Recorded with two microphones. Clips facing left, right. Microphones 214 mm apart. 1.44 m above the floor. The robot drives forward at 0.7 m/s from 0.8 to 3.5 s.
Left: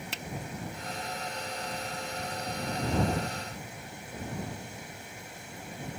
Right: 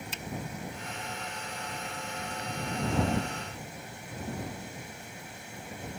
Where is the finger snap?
70° left (ahead or behind).